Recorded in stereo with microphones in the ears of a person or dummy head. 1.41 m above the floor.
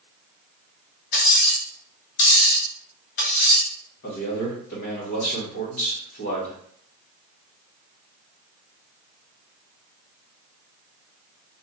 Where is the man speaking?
55° left (ahead or behind), 2 m.